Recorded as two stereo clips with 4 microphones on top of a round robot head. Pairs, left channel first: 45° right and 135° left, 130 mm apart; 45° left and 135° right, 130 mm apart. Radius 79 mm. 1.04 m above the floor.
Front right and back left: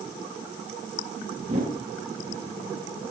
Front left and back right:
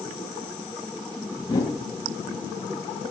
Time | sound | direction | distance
1.4 | a whoosh | 100° left | 2 m